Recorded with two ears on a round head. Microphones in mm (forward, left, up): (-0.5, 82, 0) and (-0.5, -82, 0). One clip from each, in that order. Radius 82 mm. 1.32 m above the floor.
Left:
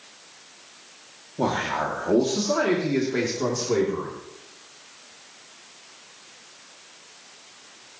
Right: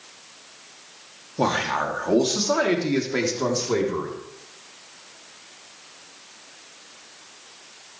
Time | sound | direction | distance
1.4 | a man speaking | 50° right (ahead or behind) | 2 m